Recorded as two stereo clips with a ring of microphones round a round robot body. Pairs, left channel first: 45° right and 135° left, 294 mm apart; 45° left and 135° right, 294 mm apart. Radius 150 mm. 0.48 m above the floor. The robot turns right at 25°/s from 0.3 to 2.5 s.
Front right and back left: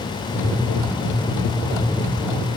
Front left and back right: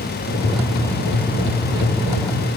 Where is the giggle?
No giggle in this recording.